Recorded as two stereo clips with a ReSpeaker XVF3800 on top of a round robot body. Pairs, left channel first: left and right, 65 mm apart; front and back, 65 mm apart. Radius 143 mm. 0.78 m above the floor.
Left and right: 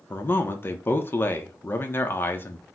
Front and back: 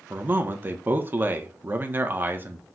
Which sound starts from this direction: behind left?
A man speaking, at 0.1 s.